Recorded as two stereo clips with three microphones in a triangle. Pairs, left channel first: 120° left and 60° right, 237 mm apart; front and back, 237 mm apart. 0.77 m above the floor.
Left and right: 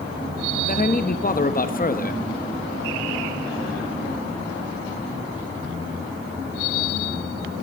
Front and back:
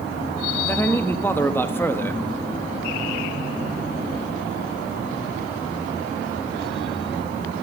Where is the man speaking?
75° left, 0.7 m.